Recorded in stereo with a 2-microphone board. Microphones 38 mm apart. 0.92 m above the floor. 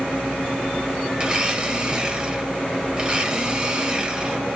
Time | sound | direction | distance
1.2 | a blender | 25° right (ahead or behind) | 0.7 m